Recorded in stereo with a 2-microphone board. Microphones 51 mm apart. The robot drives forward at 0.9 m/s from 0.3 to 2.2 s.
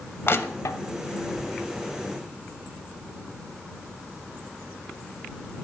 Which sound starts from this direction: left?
Crushing, at 0.3 s.